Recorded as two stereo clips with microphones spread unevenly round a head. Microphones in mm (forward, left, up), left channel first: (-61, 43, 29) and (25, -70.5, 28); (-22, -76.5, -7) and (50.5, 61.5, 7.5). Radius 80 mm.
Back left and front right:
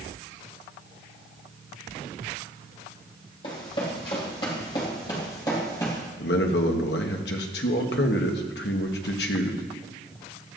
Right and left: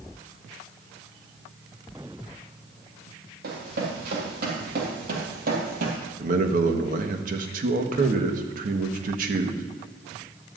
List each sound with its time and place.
3.4 s running footsteps: 70° left, 4 m; by 6.0 s 55° left, 2.5 m
6.2 s a man speaking: 105° left, 1.2 m